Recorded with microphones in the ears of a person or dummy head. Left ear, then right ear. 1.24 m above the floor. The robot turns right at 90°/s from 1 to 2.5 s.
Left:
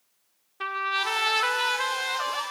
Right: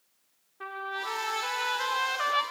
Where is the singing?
I don't hear singing.